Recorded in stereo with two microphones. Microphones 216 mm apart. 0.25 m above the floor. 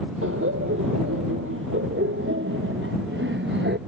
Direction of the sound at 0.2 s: 75° right (ahead or behind).